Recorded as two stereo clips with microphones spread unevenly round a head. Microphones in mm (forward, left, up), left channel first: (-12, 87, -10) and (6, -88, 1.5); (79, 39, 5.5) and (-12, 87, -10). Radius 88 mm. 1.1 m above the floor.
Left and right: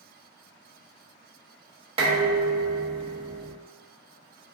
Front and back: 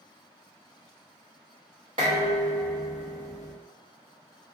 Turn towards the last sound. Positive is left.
turn(degrees=-145)